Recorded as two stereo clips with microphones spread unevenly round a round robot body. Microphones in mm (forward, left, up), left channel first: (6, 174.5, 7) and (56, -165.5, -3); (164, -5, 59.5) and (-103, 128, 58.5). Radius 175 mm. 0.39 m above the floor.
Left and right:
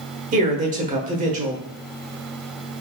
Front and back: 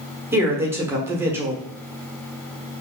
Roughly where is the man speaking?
Behind right.